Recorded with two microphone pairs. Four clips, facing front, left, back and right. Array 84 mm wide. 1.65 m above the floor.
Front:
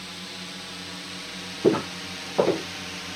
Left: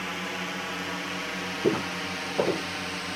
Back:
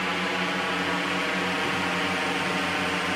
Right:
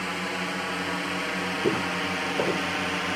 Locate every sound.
0.0 s a drone: 170° right; by 3.2 s 150° right
1.6 s footsteps: straight ahead; by 2.7 s 5° left